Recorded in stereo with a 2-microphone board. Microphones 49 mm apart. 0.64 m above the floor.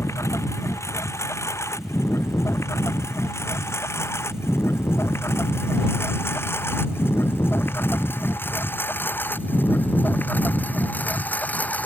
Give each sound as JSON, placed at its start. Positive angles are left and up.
{"t": 0.0, "sound": "a lawn mower", "side_deg": 65}